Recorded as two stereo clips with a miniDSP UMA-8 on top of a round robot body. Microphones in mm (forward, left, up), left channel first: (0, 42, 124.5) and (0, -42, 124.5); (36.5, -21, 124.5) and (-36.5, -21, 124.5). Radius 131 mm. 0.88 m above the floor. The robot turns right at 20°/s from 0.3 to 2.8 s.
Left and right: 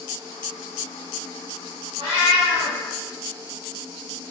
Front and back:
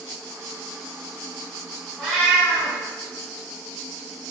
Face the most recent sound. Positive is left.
turn(degrees=-70)